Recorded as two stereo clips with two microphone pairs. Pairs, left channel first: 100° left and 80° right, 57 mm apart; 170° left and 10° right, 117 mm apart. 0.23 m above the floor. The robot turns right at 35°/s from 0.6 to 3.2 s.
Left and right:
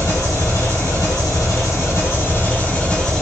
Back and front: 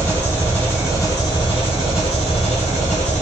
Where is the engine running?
90° left, 3 m; by 3.2 s 175° right, 3 m.